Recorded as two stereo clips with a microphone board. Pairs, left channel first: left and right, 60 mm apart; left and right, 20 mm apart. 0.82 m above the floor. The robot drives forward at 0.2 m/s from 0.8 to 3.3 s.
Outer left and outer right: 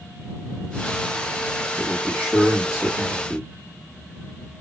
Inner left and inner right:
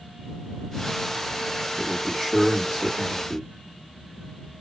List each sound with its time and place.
1.8 s a man speaking: 5° right (ahead or behind), 1.6 m